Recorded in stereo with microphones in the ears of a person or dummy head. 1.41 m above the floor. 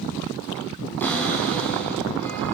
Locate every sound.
1.0 s a cupboard door: 10° left (ahead or behind), 6 m